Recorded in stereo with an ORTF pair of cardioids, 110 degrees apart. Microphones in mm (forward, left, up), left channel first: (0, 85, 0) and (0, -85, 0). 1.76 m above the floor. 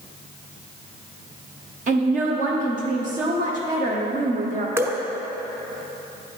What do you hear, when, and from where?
1.9 s a woman speaking: 50° right, 1.0 m
4.8 s dripping: 15° right, 0.6 m